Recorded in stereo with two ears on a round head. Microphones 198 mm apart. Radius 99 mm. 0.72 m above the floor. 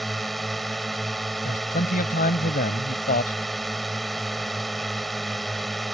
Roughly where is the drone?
Centre.